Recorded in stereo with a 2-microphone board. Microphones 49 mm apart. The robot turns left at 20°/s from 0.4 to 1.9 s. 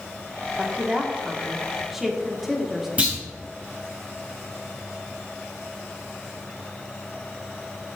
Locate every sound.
0.6 s a woman speaking: 30° right (ahead or behind), 1.8 m; by 2.9 s 5° right (ahead or behind), 1.8 m
3.0 s a clunk: 30° right (ahead or behind), 3 m